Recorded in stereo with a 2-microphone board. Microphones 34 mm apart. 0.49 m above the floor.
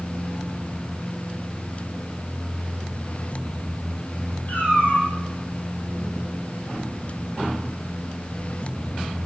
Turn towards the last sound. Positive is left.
turn(degrees=55)  # may be behind; listen again after turning